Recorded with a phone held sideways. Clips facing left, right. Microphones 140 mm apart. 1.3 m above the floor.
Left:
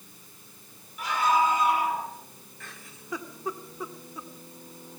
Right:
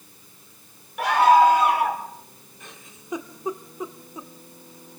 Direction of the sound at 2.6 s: 20° right (ahead or behind).